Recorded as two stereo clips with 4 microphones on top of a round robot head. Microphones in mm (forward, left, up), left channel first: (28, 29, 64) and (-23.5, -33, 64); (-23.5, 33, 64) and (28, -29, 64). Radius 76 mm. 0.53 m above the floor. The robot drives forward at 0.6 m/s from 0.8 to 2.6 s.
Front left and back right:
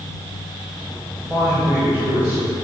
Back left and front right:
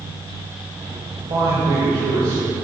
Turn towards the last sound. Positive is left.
turn(degrees=-75)